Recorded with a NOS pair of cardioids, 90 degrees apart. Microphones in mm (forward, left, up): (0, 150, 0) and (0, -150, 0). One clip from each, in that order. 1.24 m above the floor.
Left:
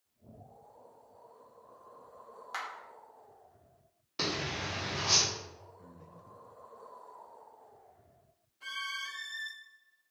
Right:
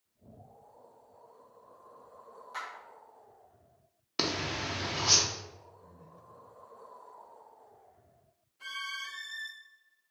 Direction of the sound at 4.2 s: 40° right.